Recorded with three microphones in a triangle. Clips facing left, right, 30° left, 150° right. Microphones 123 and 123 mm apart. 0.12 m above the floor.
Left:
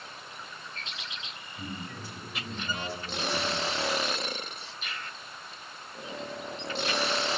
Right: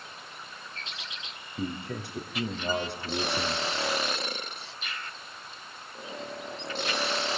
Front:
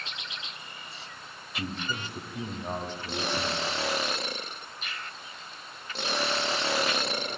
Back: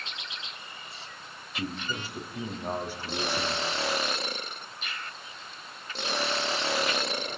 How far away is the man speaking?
About 5 m.